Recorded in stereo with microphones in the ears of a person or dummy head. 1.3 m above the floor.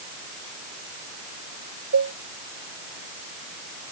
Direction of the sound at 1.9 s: 85° right.